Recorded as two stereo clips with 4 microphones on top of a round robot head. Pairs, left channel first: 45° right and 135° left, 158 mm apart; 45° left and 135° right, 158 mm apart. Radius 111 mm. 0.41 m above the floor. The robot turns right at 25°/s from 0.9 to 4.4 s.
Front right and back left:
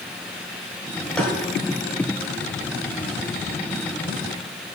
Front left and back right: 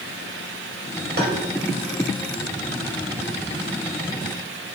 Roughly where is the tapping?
Behind right.